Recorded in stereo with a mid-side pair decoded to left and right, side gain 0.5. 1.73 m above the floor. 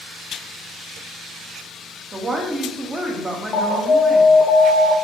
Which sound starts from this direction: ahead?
A woman speaking, at 2.1 s.